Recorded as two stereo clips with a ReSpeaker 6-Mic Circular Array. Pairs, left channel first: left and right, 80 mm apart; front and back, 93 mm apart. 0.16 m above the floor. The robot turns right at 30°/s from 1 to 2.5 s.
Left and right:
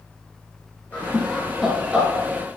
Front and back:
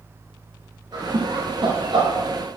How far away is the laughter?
About 2 m.